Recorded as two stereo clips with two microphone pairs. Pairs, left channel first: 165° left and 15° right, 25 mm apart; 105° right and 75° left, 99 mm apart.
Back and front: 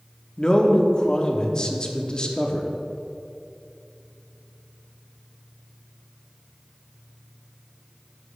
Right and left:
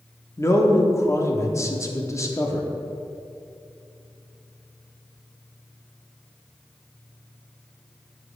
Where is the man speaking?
150° right, 0.8 m.